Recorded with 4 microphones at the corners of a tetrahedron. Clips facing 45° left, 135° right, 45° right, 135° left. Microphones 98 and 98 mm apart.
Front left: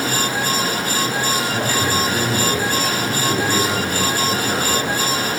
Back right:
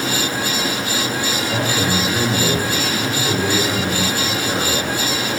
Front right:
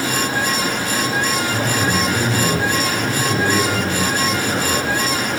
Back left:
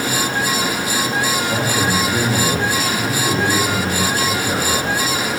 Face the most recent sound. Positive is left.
turn(degrees=105)